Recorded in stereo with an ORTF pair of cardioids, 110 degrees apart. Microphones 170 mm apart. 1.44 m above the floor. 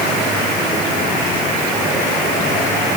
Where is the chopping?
I don't hear chopping.